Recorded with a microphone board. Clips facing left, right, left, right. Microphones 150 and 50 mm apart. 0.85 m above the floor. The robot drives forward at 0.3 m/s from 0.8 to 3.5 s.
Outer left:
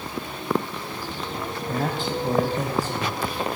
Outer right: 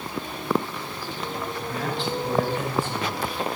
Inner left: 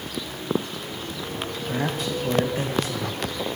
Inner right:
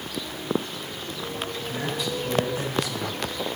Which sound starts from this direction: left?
A man speaking, at 1.7 s.